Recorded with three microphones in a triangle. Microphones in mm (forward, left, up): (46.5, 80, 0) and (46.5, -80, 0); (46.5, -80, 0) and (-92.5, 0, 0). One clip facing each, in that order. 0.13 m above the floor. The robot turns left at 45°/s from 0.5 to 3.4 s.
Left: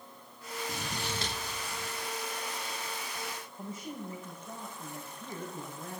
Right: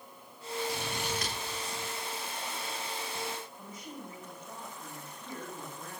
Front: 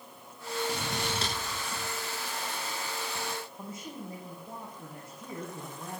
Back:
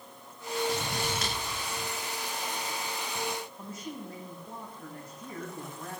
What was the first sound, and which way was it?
Scissors, 55° left.